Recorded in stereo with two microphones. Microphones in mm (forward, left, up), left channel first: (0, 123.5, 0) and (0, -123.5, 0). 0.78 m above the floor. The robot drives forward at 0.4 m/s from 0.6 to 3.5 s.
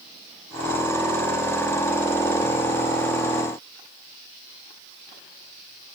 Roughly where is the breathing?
I don't hear breathing.